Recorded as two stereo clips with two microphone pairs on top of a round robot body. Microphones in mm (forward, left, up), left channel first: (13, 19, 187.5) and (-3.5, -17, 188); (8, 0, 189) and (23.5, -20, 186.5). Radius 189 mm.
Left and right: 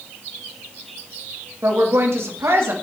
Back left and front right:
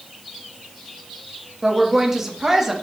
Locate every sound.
1.6 s a woman speaking: 125° right, 2.5 m